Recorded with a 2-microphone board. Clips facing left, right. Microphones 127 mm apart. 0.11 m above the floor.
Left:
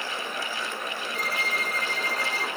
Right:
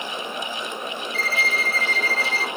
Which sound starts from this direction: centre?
A violin, at 1.1 s.